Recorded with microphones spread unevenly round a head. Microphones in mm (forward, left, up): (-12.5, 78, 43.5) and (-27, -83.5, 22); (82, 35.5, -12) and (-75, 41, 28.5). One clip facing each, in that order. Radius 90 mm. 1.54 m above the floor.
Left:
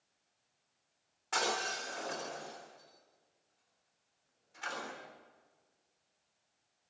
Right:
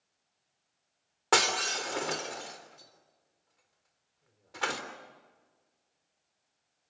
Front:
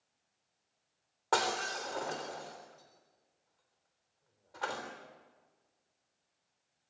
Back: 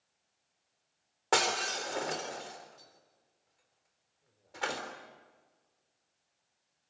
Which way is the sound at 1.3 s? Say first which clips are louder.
Right 6 dB, back 2 dB; 115° right.